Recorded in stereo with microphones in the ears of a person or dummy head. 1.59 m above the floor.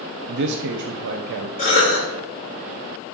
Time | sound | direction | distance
0.3 | a man speaking | 65° right (ahead or behind) | 0.7 m
1.6 | a cough | 40° left (ahead or behind) | 4 m